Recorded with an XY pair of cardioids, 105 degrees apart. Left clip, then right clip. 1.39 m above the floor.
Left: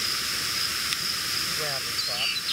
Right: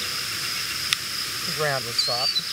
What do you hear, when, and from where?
1.5 s a man speaking: 65° right